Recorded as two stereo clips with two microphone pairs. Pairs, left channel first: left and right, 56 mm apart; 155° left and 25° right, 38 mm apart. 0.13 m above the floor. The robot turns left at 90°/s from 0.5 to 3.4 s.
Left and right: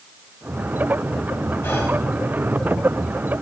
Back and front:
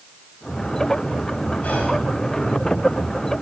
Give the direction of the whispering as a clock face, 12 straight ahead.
8 o'clock.